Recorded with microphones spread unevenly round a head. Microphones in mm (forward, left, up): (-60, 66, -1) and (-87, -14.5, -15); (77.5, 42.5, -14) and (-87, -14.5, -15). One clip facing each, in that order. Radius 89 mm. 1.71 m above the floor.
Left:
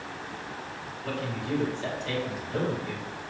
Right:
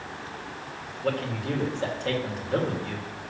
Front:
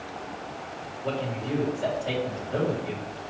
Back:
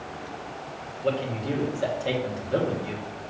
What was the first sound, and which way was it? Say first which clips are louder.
A man speaking: right 4 dB, back 3 dB; 135° right.